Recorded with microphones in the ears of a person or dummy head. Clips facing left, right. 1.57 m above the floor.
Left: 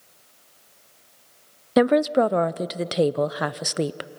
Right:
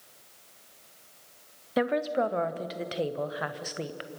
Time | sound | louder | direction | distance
1.8 | a woman speaking | left 9 dB | 60° left (ahead or behind) | 0.5 m